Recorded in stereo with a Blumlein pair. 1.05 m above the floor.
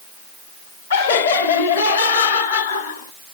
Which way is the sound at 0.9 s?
65° left.